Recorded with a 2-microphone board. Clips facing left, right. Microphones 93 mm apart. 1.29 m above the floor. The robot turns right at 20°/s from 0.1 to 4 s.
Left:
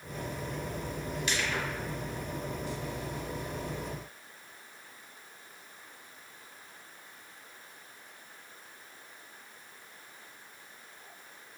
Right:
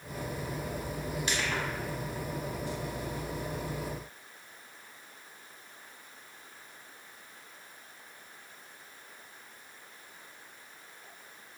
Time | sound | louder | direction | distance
1.3 | crushing | even | 35° right (ahead or behind) | 1.0 m